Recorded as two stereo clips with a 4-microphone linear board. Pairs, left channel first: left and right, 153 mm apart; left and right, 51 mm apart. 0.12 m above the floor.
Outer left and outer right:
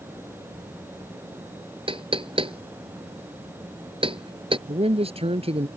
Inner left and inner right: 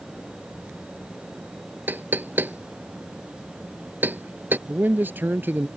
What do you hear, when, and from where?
1.9 s knocking: 35° right (ahead or behind)
4.7 s a man speaking: 40° right (ahead or behind)